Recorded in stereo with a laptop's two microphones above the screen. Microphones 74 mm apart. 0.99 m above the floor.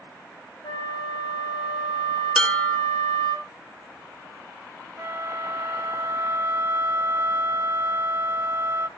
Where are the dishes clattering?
10° left (ahead or behind), 0.8 m.